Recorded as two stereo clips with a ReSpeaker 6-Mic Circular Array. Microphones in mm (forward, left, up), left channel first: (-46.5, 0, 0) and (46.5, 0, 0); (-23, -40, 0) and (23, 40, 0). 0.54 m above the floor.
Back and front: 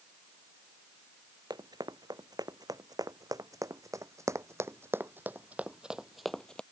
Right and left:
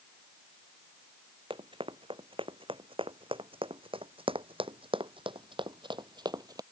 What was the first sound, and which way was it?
Running footsteps, 45° left.